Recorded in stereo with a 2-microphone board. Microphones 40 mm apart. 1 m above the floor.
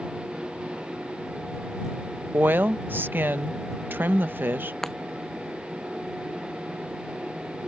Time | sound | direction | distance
2.3 | a woman speaking | 60° right (ahead or behind) | ?
4.8 | breaking glass | 10° left (ahead or behind) | ?